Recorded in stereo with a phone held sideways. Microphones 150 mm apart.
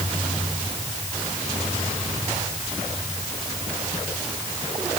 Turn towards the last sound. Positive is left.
No sound to turn to.